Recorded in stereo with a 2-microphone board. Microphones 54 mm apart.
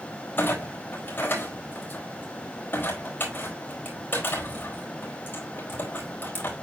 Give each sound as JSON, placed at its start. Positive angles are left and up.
{"t": 0.4, "sound": "a clunk", "side_deg": 40, "distance_m": 4.0}